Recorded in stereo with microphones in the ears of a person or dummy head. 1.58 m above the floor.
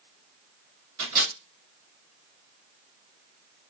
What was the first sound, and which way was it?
A microwave, 55° right (ahead or behind).